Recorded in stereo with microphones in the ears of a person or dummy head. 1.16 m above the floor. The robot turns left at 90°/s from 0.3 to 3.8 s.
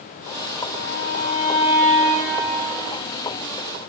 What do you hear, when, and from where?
0.7 s a violin: 120° left, 1.5 m; by 2.5 s 40° right, 1.5 m